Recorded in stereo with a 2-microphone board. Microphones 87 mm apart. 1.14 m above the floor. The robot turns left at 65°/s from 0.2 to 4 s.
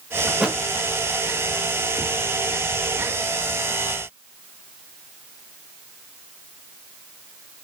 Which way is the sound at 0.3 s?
5° right (ahead or behind).